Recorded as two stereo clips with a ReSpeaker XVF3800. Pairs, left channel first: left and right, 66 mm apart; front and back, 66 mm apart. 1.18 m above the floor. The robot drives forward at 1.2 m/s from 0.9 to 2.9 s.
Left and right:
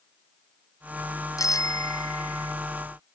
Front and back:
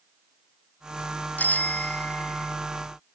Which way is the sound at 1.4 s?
65° left.